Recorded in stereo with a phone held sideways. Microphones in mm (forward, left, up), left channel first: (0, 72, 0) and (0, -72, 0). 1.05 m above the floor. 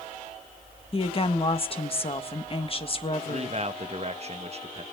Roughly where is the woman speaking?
Left.